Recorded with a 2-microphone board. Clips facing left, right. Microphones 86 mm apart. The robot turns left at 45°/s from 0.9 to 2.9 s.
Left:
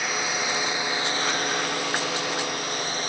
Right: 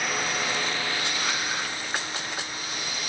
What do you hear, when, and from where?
0.0 s a drone: 5° left (ahead or behind); by 3.1 s 40° left (ahead or behind)